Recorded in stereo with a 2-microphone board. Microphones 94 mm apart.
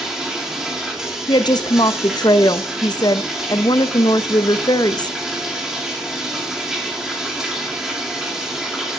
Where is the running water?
5° right (ahead or behind), 2 m.